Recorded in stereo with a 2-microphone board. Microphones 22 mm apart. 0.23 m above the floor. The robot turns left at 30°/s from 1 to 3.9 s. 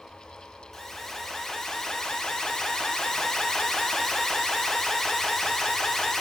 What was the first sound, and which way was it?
An alarm, 145° left.